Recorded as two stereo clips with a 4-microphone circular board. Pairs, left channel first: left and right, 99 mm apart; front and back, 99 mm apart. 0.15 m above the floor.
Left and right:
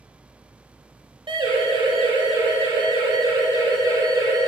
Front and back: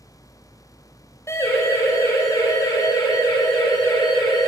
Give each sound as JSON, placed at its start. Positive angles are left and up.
{"t": 1.3, "sound": "a siren", "azimuth_deg": -60, "distance_m": 5.5}